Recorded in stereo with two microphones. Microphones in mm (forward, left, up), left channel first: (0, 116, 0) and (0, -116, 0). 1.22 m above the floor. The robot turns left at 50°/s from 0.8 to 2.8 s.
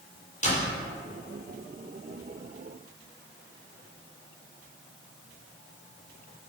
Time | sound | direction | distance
0.4 | a door slam | 30° left (ahead or behind) | 3.5 m